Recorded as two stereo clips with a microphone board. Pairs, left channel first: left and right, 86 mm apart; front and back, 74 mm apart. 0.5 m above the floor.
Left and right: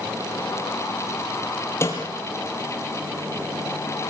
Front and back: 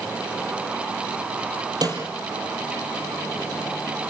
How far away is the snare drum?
About 5.5 m.